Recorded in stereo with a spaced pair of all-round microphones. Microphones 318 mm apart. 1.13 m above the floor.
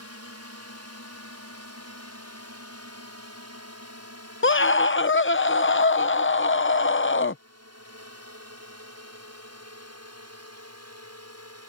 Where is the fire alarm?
No fire alarm in this recording.